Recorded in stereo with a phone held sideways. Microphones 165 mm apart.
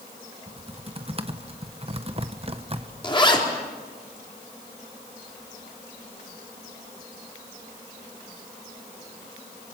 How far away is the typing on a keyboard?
About 1.1 m.